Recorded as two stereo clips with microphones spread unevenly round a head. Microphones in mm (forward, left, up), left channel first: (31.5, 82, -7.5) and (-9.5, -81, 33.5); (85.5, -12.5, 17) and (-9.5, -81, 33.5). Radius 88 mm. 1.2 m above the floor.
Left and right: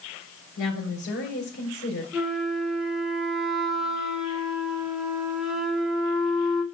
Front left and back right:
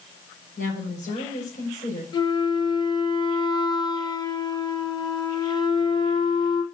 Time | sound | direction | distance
0.6 | a woman speaking | 75° left | 5 m
2.1 | a flute | 15° right | 1.8 m